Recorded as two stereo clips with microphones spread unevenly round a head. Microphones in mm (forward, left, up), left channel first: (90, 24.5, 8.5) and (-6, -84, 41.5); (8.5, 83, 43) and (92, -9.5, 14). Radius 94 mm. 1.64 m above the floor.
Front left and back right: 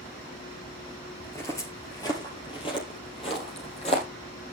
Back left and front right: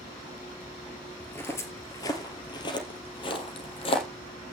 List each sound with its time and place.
1.2 s footsteps: 140° left, 1.7 m; by 4.1 s 115° left, 3 m